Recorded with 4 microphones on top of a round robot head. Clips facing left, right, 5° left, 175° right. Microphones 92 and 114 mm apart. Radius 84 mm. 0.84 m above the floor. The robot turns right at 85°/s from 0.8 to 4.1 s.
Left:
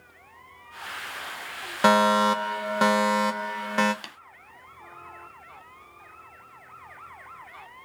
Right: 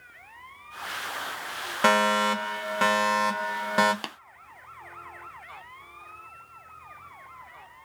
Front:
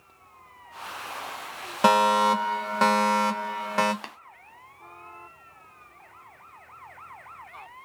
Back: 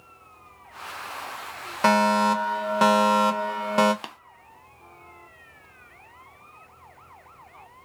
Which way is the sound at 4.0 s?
105° right.